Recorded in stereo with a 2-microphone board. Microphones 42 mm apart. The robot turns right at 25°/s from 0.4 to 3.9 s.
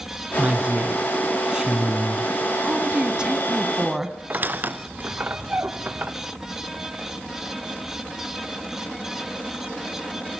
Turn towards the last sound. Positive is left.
turn(degrees=-45)  # may be behind; listen again after turning